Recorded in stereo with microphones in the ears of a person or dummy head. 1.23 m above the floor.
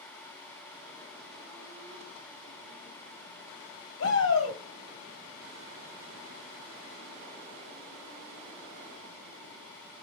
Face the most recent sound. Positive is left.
turn(degrees=80)